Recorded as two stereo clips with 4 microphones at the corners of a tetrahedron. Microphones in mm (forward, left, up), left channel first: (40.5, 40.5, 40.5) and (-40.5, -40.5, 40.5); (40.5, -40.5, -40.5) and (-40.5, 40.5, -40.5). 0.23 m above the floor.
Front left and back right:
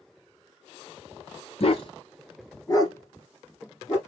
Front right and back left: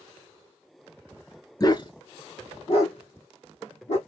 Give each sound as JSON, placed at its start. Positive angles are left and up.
{"t": 1.6, "sound": "a dog barking", "azimuth_deg": 10, "distance_m": 0.6}